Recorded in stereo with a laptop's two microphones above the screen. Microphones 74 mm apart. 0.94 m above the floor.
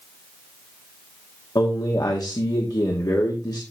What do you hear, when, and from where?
1.6 s a man speaking: 60° left (ahead or behind), 2 m